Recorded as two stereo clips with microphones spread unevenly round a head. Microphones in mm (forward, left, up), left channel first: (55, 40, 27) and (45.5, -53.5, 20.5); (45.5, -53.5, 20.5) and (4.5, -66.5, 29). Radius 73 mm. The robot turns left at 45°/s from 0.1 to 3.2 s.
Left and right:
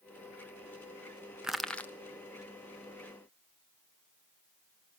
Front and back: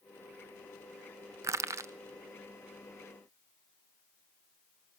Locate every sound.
1.4 s crushing: straight behind, 0.5 m; by 1.9 s 160° left, 0.5 m